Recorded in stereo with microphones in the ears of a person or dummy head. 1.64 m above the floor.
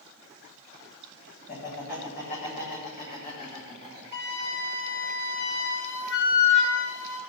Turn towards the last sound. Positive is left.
turn(degrees=80)